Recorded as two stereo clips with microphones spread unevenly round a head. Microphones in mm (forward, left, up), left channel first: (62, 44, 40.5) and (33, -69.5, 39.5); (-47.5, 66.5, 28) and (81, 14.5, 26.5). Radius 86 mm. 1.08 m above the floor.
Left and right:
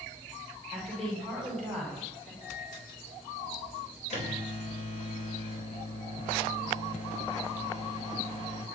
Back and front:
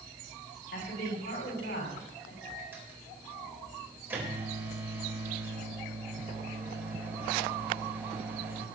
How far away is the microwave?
About 4.5 m.